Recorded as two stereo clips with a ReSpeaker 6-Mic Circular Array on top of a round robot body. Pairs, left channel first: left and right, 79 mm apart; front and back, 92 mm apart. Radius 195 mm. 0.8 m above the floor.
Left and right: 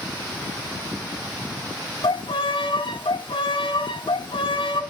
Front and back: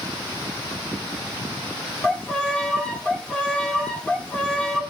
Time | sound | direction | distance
2.0 | a violin | 80° left | 1.0 m